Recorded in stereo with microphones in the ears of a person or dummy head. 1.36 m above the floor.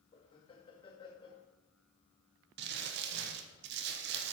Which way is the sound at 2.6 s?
60° right (ahead or behind).